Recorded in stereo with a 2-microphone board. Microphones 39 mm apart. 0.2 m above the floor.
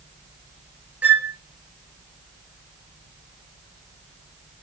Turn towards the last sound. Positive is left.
turn(degrees=-45)  # may be behind; listen again after turning